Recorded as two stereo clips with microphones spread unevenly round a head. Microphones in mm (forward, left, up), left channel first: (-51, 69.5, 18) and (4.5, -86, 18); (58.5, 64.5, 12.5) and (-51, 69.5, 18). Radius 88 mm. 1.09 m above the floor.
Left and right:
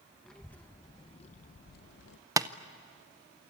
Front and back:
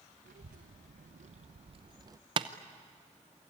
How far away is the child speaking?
About 0.9 m.